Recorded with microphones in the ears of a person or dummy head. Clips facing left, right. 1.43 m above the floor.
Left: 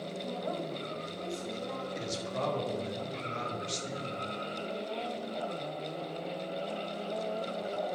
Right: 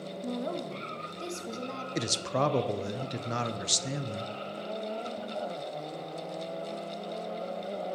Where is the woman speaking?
40° right (ahead or behind), 1.4 m.